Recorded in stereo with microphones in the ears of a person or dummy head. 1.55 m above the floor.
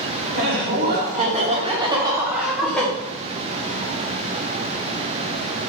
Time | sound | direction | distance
0.3 | laughter | 55° right (ahead or behind) | 1.3 m